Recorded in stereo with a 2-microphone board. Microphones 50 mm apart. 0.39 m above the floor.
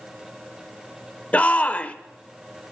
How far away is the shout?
About 1.1 m.